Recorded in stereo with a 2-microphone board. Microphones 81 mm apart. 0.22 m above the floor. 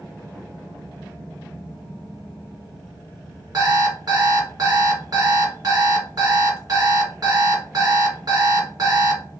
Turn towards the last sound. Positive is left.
turn(degrees=-50)  # may be behind; listen again after turning